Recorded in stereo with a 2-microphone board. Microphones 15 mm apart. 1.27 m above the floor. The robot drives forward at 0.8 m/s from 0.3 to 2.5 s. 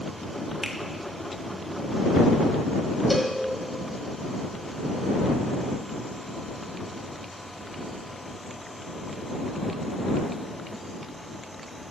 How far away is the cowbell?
About 1.5 m.